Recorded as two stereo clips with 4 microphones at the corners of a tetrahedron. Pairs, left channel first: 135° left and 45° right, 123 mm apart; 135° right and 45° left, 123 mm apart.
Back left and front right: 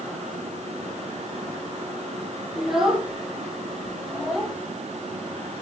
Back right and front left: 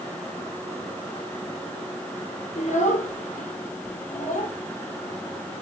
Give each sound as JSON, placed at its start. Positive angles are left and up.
{"t": 2.6, "sound": "a child speaking", "azimuth_deg": -130, "distance_m": 7.0}